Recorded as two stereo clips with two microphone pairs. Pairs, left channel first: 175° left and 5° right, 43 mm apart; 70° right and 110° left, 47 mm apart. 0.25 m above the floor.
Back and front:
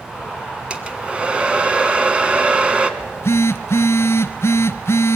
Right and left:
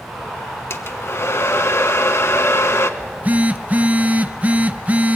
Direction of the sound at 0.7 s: 70° right.